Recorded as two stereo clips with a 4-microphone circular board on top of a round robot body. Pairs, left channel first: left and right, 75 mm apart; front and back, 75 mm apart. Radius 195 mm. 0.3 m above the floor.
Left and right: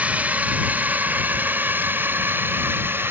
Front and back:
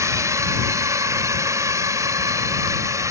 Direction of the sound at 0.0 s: 155° right.